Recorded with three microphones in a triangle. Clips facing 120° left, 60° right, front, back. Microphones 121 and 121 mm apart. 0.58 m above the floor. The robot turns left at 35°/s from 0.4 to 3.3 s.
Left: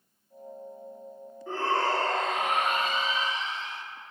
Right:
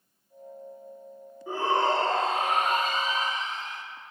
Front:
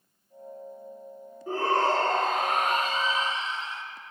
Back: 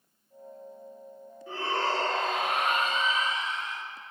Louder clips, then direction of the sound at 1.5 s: Right 2 dB, front 5 dB; 15° left.